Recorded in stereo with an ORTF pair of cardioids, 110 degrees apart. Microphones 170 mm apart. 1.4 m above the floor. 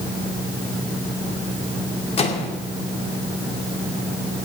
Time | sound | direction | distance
2.2 | a microwave | 40° left | 2.5 m